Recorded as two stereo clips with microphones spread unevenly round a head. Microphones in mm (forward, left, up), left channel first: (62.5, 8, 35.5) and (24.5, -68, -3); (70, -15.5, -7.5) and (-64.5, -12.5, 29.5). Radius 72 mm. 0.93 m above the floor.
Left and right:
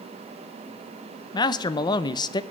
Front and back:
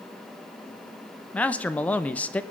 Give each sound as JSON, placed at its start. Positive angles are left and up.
{"t": 1.3, "sound": "a man speaking", "azimuth_deg": 30, "distance_m": 0.8}